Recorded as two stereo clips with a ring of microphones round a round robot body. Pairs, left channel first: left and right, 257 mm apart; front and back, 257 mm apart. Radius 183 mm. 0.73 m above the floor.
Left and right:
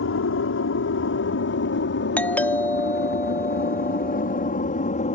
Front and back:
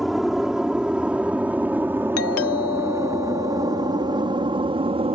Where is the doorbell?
5° left.